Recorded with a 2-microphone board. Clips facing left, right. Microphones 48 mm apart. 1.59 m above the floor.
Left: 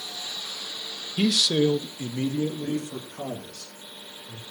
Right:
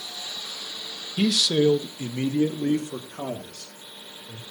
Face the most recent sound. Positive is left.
turn(degrees=-70)  # may be behind; listen again after turning